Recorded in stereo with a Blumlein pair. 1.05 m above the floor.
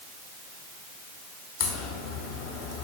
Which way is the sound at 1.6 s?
40° left.